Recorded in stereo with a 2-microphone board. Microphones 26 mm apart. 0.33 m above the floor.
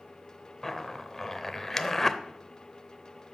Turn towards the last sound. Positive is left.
turn(degrees=15)  # may be behind; listen again after turning